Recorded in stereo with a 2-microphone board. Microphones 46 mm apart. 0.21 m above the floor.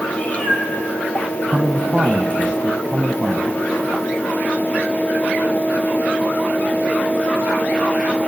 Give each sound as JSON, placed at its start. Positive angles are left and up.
{"t": 0.1, "sound": "a cat meowing", "side_deg": 30, "distance_m": 3.0}
{"t": 1.5, "sound": "a man speaking", "side_deg": -30, "distance_m": 1.2}